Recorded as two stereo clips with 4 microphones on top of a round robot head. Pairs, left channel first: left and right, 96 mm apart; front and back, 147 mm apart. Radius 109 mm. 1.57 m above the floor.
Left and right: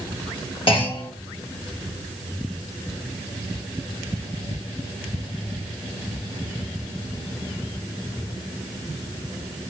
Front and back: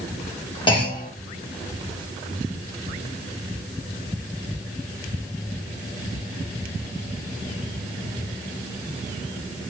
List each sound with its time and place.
0.7 s a clunk: 60° left, 1.4 m